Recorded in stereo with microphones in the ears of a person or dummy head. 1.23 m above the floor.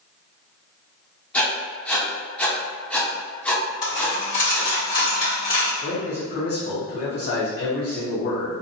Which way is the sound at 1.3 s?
10° left (ahead or behind).